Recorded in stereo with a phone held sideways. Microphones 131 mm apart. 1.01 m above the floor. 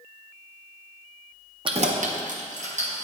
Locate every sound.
1.6 s keys jangling: 40° right (ahead or behind), 0.6 m; by 3.0 s 60° right (ahead or behind), 1.5 m